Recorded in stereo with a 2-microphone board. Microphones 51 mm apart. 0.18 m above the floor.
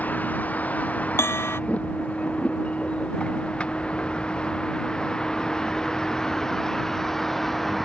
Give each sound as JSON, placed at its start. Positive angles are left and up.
{"t": 0.0, "sound": "a vehicle", "side_deg": 35}
{"t": 1.2, "sound": "a bell", "side_deg": 60}